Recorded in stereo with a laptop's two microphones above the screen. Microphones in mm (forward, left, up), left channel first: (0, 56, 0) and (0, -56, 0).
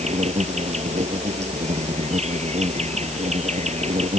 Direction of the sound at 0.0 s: 75° right (ahead or behind).